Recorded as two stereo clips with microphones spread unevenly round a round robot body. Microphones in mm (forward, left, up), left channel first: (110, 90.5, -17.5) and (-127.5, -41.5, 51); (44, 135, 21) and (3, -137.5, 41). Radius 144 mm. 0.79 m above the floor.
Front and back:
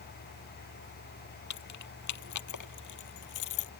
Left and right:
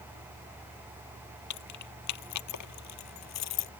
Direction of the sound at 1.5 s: 55° left.